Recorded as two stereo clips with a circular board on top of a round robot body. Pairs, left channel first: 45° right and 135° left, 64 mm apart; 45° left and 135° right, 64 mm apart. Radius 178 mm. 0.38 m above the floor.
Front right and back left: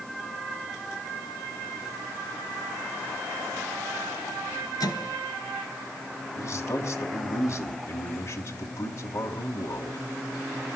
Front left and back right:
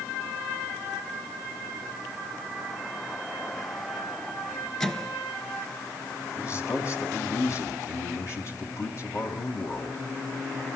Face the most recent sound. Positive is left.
turn(degrees=0)